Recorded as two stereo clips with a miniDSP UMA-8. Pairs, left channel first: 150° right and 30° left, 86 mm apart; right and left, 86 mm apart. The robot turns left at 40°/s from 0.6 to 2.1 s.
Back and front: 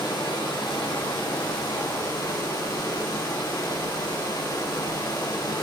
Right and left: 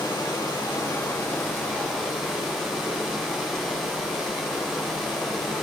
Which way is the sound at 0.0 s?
120° right.